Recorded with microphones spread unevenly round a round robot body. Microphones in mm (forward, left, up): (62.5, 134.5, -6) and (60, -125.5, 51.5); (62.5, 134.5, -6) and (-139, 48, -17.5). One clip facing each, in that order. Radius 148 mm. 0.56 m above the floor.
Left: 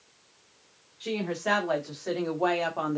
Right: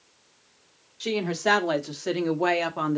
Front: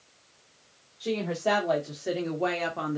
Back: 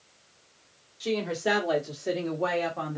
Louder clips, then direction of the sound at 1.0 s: Right 4 dB, back 1 dB; 105° right.